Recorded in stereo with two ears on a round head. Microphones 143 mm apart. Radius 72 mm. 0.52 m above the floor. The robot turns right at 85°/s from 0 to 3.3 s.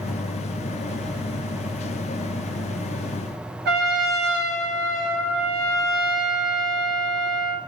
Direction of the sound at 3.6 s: 70° right (ahead or behind).